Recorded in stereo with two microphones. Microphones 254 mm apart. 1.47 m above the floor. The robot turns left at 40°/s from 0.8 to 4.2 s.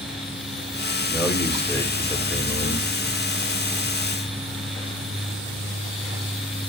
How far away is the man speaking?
About 4 m.